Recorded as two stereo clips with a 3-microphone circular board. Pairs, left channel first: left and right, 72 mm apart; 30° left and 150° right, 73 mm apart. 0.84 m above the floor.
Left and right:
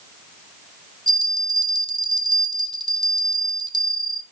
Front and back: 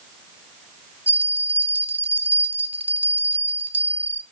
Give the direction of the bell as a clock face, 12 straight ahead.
3 o'clock.